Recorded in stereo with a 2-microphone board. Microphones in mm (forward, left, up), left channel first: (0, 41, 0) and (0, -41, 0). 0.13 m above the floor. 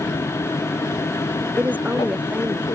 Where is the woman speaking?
15° right (ahead or behind).